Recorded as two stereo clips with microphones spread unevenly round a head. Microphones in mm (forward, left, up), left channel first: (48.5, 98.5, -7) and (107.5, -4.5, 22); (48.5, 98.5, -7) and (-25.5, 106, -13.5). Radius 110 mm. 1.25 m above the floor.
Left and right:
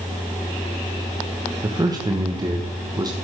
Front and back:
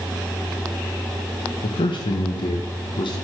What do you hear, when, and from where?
1.6 s a man speaking: straight ahead, 1.2 m